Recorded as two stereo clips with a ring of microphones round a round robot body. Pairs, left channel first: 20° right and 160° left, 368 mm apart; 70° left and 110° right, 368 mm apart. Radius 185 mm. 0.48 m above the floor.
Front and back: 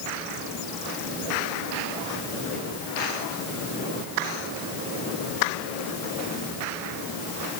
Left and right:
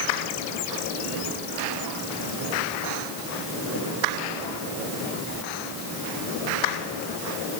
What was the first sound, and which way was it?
Only background noise.